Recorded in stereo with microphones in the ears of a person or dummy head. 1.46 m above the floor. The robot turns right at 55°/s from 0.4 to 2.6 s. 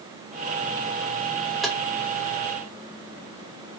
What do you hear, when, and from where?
1.6 s tapping: centre (ahead or behind), 0.8 m; by 1.8 s 10° right (ahead or behind), 0.8 m